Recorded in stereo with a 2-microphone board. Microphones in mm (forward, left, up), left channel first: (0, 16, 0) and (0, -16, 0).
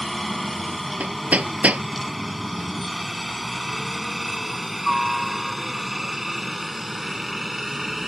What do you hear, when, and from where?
0.0 s a helicopter: 5° left (ahead or behind); by 8.1 s 15° right (ahead or behind)
1.0 s hammering: 50° right (ahead or behind)